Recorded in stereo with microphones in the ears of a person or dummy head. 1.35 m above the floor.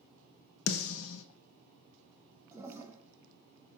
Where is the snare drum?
85° left, 0.9 m.